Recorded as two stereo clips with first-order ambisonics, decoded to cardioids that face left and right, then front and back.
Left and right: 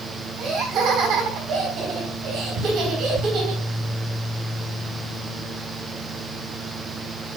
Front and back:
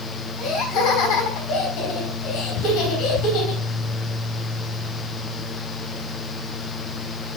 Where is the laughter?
40° right, 5.5 m.